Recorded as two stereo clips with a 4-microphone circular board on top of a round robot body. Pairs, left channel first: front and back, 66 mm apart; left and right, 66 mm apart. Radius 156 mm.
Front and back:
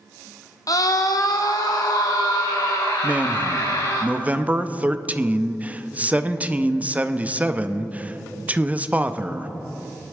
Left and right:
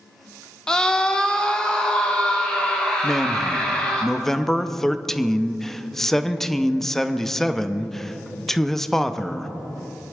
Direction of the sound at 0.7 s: 15° left.